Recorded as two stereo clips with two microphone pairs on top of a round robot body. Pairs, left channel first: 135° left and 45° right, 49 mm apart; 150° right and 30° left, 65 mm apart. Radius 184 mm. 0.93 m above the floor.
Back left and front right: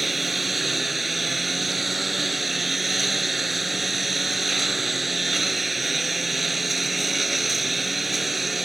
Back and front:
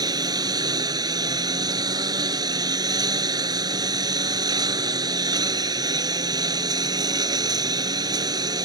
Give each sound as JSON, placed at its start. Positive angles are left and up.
{"t": 0.0, "sound": "a lawn mower", "azimuth_deg": 45}